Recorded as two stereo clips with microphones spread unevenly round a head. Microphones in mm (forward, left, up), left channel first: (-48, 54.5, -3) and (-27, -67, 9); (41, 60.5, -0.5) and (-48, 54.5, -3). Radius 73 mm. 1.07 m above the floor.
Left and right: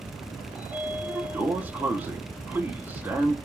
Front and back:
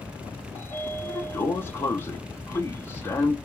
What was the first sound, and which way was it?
A sliding door, 10° right.